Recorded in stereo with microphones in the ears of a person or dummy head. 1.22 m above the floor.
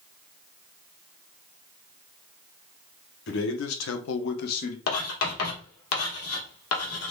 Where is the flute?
No flute in this recording.